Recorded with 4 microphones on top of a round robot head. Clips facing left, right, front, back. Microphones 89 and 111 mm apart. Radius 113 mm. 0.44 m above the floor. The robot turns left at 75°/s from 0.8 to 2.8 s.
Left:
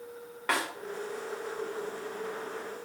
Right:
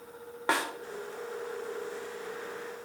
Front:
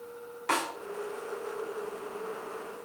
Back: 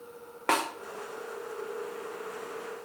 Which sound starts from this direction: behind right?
A snare drum, at 0.5 s.